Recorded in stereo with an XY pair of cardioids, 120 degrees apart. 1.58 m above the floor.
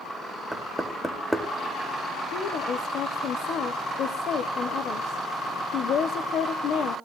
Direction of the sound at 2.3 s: 60° left.